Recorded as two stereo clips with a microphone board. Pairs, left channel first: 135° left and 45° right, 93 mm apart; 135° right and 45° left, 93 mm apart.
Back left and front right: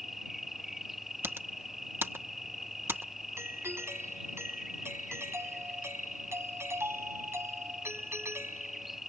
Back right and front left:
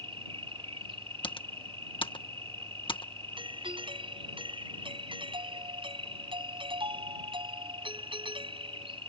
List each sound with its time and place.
0.0 s an insect: 45° left
1.2 s typing on a keyboard: 110° right
3.4 s a doorbell: 20° left